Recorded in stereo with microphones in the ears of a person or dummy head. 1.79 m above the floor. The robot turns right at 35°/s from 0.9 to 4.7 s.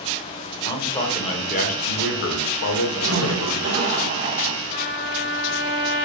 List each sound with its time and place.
0.7 s a man speaking: 20° left, 0.6 m; by 3.7 s 120° left, 0.6 m
3.0 s a zipper: 110° right, 1.4 m; by 4.6 s 55° right, 1.4 m
4.7 s a trumpet: 15° left (ahead or behind), 1.8 m